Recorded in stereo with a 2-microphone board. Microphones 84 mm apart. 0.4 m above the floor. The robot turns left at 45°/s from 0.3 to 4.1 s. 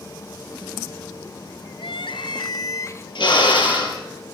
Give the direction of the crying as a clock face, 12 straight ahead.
9 o'clock.